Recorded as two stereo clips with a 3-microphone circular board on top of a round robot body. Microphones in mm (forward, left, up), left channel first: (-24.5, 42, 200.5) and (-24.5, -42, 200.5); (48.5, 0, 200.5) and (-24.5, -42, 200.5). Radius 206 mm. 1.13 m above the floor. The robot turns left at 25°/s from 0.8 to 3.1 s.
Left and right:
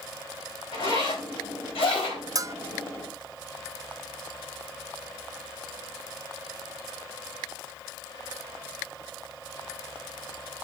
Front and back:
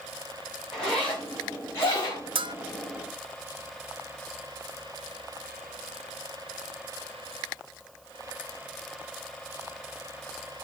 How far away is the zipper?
About 4 m.